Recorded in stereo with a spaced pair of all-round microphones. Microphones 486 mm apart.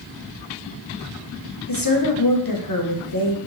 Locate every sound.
1.7 s a woman speaking: 45° left (ahead or behind), 0.9 m